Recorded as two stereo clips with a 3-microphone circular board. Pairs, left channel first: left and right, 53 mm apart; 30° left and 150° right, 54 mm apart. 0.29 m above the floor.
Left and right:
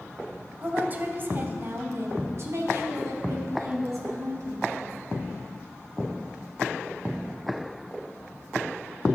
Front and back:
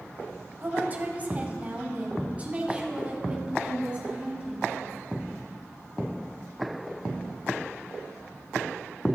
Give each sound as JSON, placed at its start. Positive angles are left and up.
{"t": 0.6, "sound": "a woman speaking", "azimuth_deg": -125, "distance_m": 1.1}